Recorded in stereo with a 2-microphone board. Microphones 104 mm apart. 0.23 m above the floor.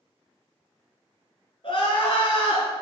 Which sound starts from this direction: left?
Crying, at 1.6 s.